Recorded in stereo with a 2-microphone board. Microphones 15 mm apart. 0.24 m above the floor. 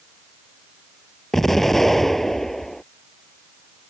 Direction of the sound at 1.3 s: 20° left (ahead or behind).